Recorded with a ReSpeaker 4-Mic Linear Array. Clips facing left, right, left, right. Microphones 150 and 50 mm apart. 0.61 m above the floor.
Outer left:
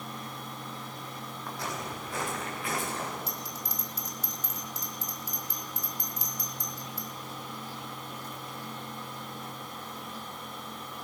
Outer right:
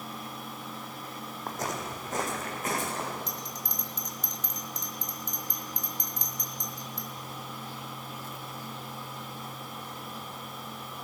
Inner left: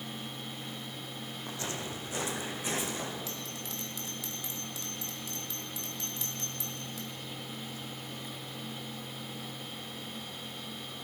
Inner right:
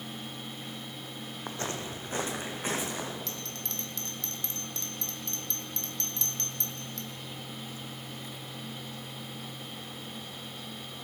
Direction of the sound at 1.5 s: 40° right (ahead or behind).